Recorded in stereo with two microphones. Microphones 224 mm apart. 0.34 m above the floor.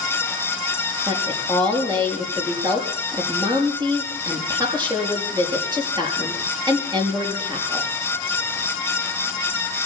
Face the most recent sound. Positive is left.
turn(degrees=-20)  # may be behind; listen again after turning